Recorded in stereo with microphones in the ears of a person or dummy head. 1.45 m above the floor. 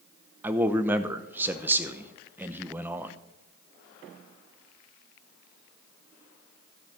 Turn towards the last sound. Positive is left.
turn(degrees=-20)  # may be behind; listen again after turning